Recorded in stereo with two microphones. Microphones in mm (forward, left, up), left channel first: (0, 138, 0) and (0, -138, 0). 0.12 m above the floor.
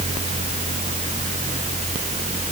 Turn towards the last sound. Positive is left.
No sound to turn to.